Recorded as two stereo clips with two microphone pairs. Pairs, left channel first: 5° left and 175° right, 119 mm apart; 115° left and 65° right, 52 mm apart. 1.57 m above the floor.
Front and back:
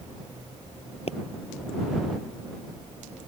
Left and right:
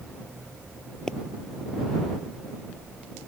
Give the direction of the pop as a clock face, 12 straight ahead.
11 o'clock.